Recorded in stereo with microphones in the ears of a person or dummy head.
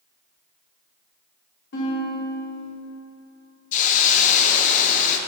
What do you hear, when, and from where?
1.7 s a guitar: 55° left (ahead or behind), 2.0 m
3.7 s a hiss: 45° left (ahead or behind), 0.6 m